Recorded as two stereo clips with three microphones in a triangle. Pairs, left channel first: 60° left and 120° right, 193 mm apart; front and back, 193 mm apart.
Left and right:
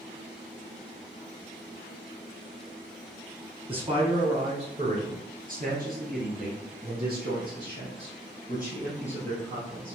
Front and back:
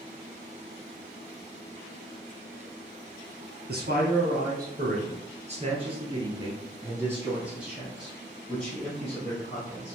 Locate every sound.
3.7 s a man speaking: 175° right, 1.9 m; by 9.9 s 75° right, 3 m